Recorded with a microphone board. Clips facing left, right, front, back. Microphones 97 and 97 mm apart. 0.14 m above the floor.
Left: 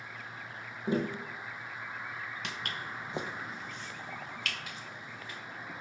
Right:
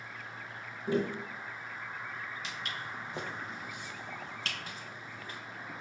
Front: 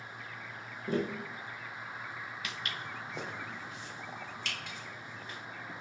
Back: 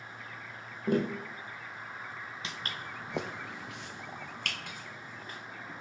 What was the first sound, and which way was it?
Tapping, 155° left.